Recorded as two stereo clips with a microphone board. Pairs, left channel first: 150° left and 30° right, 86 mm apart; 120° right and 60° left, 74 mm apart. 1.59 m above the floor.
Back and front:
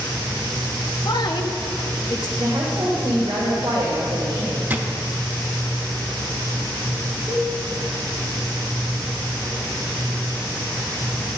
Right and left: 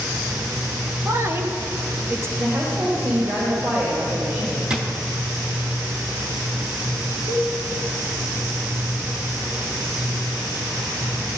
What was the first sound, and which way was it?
A woman speaking, 115° left.